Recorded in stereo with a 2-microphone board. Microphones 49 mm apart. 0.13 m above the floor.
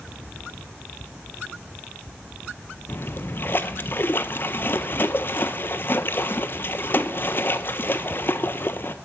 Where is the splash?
45° left (ahead or behind), 0.6 m.